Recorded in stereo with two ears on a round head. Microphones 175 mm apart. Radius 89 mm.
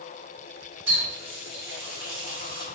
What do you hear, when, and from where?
0.9 s a running tap: 15° right (ahead or behind), 1.9 m